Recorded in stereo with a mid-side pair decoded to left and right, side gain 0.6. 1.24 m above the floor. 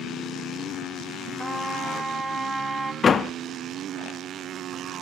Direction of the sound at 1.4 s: 20° right.